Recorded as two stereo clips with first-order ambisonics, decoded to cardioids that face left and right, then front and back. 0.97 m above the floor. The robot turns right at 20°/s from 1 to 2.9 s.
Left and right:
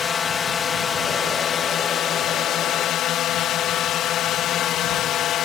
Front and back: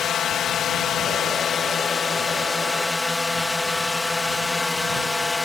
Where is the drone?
35° left; by 5.4 s 75° left.